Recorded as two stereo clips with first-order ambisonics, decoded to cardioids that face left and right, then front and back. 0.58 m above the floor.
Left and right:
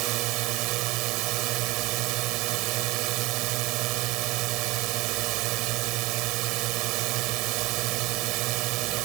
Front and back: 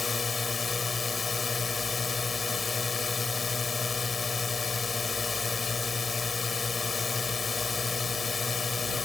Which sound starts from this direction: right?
A drone, at 0.0 s.